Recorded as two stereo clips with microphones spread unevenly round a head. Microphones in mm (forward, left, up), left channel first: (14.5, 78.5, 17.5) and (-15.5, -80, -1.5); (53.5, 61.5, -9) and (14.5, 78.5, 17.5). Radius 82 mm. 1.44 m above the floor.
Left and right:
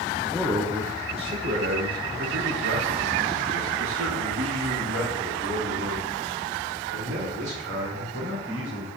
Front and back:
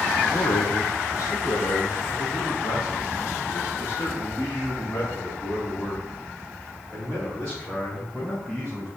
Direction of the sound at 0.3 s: 10° right.